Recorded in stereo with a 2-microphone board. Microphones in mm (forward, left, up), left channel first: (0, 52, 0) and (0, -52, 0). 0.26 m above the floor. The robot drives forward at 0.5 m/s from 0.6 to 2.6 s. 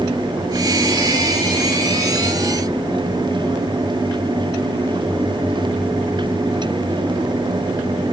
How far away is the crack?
No crack in this recording.